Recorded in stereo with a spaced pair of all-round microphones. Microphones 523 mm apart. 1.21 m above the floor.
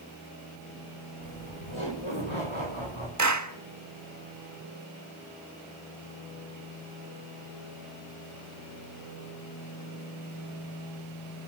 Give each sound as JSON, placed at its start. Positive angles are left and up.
{"t": 1.2, "sound": "laughter", "side_deg": 70, "distance_m": 5.5}
{"t": 3.2, "sound": "a clap", "side_deg": -35, "distance_m": 1.5}